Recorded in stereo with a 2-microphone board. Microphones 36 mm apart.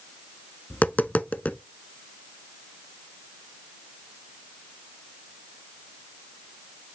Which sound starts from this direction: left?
Tapping, at 0.7 s.